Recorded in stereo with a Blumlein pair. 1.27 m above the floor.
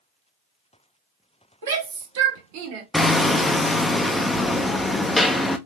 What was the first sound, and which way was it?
A shout, 65° right.